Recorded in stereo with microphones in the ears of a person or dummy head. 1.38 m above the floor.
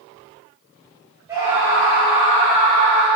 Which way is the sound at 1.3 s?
15° right (ahead or behind).